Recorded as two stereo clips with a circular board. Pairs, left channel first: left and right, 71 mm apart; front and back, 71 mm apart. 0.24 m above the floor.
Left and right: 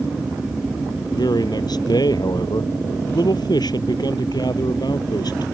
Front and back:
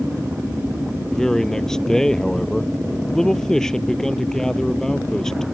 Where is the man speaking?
80° left.